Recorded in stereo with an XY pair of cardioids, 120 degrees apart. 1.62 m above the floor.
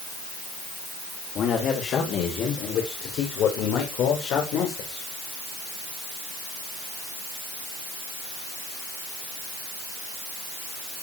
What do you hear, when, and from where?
1.4 s a man speaking: 55° left, 6.5 m; by 5.1 s 80° left, 7 m